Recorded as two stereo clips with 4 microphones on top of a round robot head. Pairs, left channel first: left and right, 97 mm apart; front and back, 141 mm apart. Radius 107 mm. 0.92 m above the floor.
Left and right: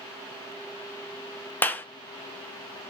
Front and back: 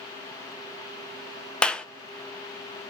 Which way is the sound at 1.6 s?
70° left.